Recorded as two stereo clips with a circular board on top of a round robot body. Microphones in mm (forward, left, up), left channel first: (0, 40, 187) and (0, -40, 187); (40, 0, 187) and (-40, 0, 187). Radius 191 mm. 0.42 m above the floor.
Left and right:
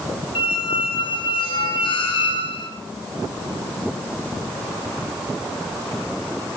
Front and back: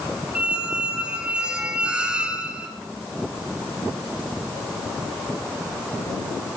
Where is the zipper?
I don't hear a zipper.